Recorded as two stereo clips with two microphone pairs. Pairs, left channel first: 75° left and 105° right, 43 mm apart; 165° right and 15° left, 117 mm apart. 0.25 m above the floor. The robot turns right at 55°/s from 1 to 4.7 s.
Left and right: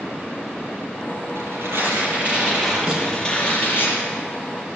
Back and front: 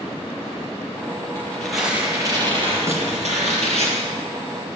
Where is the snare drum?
55° right, 4.5 m; by 3.1 s 40° right, 4.5 m.